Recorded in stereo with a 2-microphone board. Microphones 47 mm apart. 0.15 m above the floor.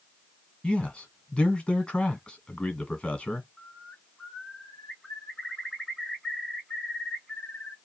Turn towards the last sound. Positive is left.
turn(degrees=10)  # may be behind; listen again after turning